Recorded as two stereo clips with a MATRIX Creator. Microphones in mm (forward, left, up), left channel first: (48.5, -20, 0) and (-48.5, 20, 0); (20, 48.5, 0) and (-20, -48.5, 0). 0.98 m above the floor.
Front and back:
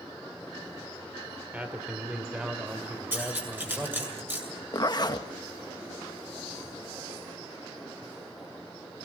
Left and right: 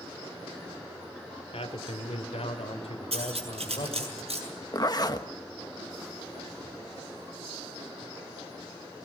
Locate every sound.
1.5 s a man speaking: 80° left, 2.5 m; by 4.1 s 75° left, 4 m
3.1 s cutlery clinking: 130° right, 7 m
4.7 s a zipper: 20° left, 1.1 m